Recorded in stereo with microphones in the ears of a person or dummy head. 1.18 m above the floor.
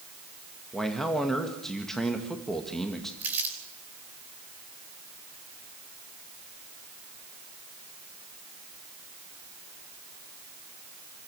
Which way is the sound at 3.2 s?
15° right (ahead or behind).